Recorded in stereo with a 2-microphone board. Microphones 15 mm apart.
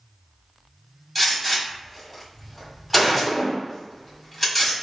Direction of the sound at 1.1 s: 10° left (ahead or behind).